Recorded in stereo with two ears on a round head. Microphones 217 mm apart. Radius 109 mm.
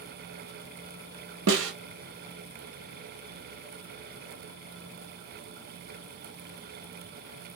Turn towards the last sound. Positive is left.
turn(degrees=-55)  # may be behind; listen again after turning